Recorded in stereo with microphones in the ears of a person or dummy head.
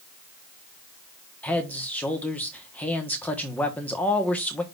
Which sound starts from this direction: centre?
A man speaking, at 1.4 s.